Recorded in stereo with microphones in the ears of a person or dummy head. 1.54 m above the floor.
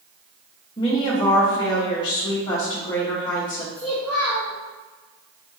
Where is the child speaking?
5° left (ahead or behind), 0.7 m.